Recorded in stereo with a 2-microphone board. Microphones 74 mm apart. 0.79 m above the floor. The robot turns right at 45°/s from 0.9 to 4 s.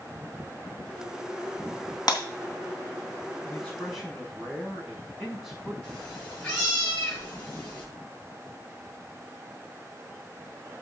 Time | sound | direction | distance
2.1 | breaking glass | 65° left (ahead or behind) | 3 m
3.5 | a man speaking | 20° left (ahead or behind) | 5.5 m
5.8 | a cat meowing | 15° left (ahead or behind) | 7.5 m